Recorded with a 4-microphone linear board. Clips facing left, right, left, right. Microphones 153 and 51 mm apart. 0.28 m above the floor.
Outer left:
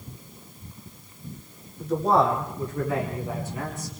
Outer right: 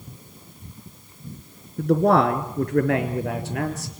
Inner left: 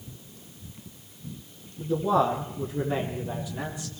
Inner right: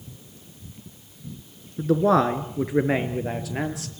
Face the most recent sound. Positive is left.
turn(degrees=-75)  # may be behind; listen again after turning